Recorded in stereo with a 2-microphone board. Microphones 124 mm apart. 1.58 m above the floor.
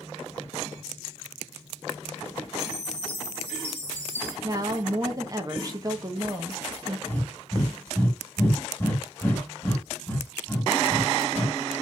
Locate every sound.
2.6 s a chime: 15° left (ahead or behind), 2.5 m
4.4 s a woman speaking: 30° right (ahead or behind), 0.8 m
7.1 s breathing: 15° left (ahead or behind), 1.6 m